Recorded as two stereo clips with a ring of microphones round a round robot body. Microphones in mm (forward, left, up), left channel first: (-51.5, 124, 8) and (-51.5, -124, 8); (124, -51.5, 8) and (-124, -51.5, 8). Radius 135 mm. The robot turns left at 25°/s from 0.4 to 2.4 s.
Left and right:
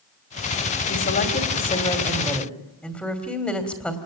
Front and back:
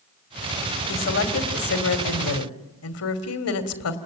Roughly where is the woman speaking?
Ahead left.